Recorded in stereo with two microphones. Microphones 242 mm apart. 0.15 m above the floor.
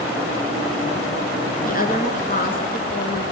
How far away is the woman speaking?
About 2.5 m.